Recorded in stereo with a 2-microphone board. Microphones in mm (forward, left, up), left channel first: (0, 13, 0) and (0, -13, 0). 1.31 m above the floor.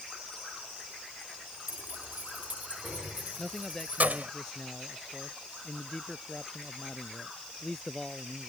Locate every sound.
1.7 s keys jangling: 75° right (ahead or behind); by 4.3 s 70° right (ahead or behind)
3.4 s a man speaking: 15° left (ahead or behind)